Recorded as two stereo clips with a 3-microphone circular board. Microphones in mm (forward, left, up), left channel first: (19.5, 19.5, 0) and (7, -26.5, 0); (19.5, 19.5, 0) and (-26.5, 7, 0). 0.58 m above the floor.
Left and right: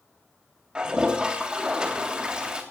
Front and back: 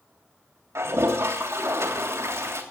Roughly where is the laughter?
I don't hear laughter.